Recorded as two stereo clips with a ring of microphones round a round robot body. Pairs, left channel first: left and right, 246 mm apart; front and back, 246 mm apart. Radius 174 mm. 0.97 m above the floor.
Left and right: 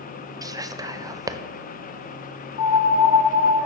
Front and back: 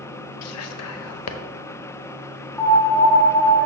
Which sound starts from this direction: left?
A piano, at 2.6 s.